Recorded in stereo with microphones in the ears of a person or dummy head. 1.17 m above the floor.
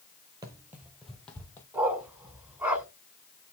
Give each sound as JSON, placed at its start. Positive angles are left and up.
{"t": 0.4, "sound": "running footsteps", "side_deg": -20, "distance_m": 1.6}
{"t": 1.7, "sound": "a dog barking", "side_deg": -10, "distance_m": 3.0}